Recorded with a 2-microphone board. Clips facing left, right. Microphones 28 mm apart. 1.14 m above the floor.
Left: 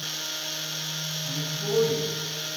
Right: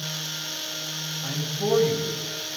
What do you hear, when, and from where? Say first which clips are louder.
1.2 s a man speaking: right 7 dB; 70° right (ahead or behind), 6.5 m